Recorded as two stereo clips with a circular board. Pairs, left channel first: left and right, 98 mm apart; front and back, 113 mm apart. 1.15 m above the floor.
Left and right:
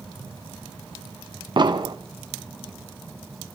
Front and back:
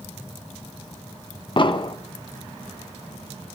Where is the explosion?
45° right, 1.1 m.